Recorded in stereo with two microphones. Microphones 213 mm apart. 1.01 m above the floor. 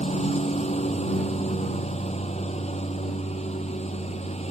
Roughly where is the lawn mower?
Left.